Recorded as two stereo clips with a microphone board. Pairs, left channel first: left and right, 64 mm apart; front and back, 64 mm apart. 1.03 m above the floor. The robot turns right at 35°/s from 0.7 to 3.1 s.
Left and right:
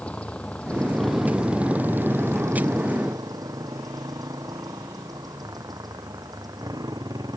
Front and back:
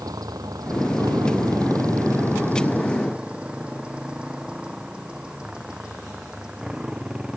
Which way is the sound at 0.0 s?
160° left.